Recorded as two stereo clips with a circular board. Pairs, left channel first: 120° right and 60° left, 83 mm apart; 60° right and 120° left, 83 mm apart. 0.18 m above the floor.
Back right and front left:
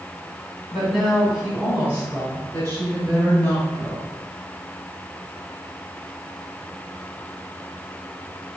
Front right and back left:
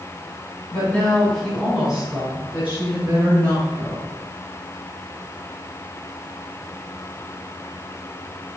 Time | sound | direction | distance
0.7 | a woman speaking | 35° right | 1.7 m